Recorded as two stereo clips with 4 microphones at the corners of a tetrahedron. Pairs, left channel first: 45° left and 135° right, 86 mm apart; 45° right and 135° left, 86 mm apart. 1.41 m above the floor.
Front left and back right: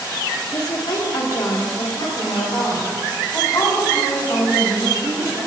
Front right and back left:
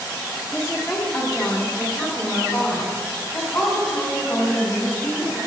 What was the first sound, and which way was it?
A woman speaking, 5° left.